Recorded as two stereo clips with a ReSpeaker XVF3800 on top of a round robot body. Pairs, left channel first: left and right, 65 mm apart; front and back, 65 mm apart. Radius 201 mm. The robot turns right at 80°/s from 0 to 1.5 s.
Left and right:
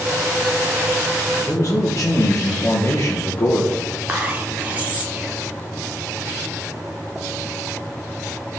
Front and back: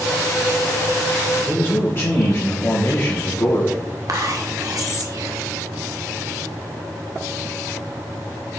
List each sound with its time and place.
1.4 s a man speaking: 35° left, 1.5 m; by 3.8 s 45° left, 1.5 m
4.1 s whispering: 155° right, 2 m